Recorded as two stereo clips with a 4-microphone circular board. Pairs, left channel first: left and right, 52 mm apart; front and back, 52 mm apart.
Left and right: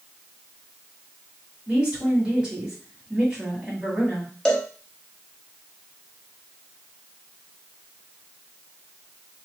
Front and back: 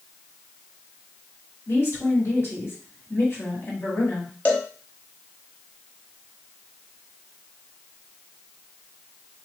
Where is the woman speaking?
20° right, 2 m.